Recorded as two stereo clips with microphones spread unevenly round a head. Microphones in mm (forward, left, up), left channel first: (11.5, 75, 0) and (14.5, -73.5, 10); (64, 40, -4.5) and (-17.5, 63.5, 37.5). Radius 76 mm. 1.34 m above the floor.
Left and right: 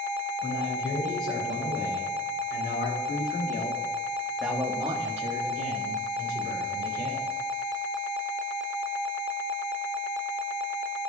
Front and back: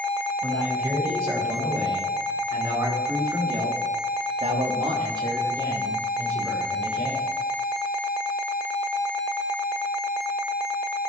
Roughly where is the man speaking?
Left.